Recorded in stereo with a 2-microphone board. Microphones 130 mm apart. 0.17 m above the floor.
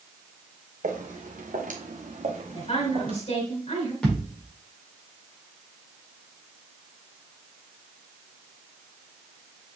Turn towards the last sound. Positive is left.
turn(degrees=5)  # may be behind; listen again after turning